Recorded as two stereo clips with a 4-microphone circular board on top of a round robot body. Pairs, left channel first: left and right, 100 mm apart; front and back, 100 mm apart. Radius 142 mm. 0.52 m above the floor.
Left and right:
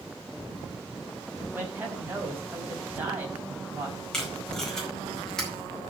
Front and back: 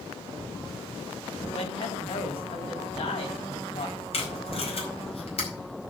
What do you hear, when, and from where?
1.5 s a man speaking: 20° right, 4.5 m
4.1 s tape being pulled: 5° left, 5 m